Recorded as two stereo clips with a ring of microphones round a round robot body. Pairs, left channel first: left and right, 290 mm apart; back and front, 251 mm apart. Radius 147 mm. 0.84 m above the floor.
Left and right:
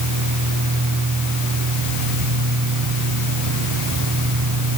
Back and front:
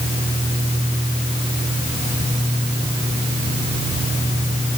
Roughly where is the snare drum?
I don't hear a snare drum.